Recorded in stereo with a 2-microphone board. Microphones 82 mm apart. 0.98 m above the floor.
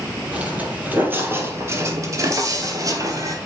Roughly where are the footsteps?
Centre.